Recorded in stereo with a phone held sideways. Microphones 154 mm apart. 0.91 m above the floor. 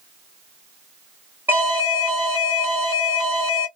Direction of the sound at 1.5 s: 15° right (ahead or behind).